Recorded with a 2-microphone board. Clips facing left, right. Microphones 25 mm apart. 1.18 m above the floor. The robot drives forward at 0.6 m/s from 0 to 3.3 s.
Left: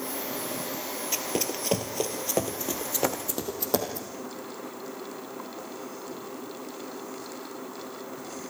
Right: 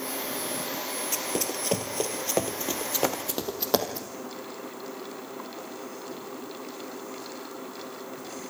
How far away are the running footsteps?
About 1.8 m.